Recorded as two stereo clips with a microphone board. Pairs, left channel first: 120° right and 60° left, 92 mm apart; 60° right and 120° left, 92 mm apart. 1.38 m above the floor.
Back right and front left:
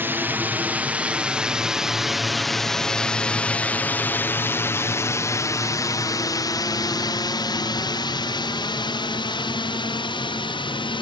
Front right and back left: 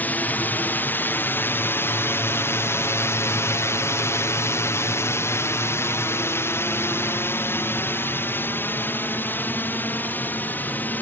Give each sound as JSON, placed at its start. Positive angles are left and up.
{"t": 0.0, "sound": "a drone", "azimuth_deg": 5}